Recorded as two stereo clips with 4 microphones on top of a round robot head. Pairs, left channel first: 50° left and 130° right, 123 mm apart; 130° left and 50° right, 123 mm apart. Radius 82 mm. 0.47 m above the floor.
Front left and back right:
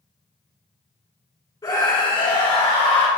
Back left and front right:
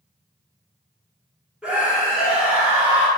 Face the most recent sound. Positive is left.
turn(degrees=25)